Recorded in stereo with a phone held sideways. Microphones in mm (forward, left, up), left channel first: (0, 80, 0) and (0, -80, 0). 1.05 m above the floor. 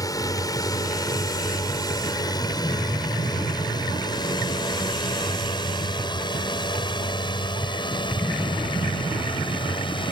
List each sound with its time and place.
0.0 s a drone: 25° left (ahead or behind); by 10.1 s 30° left (ahead or behind)